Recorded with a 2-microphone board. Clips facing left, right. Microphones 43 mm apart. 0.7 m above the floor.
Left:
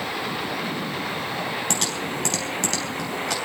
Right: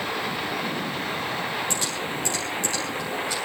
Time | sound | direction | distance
1.7 | typing on a keyboard | 70° left (ahead or behind) | 4.5 m